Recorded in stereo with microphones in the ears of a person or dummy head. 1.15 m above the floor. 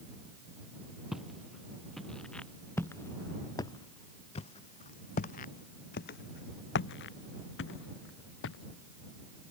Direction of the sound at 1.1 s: 5° right (ahead or behind).